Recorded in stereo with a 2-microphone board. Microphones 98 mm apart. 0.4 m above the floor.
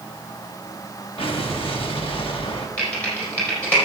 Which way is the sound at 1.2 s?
65° left (ahead or behind).